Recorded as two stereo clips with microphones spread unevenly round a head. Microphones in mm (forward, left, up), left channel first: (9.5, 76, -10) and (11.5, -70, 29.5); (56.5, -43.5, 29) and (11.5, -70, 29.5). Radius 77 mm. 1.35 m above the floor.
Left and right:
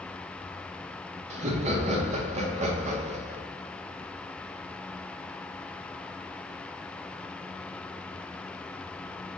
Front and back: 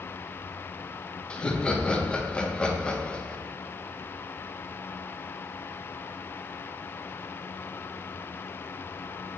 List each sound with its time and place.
1.3 s laughter: 45° right, 0.8 m